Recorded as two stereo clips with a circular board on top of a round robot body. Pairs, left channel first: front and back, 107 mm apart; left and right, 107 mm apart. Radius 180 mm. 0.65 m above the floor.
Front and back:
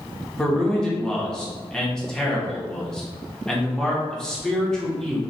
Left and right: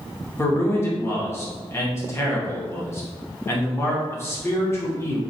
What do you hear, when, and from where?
0.4 s a man speaking: 75° left, 0.9 m